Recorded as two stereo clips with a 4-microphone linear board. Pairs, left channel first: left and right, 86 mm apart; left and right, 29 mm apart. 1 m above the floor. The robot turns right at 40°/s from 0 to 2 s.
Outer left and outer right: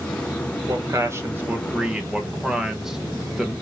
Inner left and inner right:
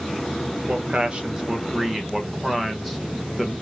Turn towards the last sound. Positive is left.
turn(degrees=-10)